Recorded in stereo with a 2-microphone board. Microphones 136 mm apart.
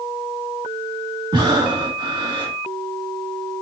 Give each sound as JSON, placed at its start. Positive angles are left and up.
{"t": 1.3, "sound": "breathing", "side_deg": -35, "distance_m": 1.9}